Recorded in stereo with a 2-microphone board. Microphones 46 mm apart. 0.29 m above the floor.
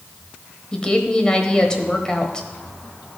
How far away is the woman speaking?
About 1.1 m.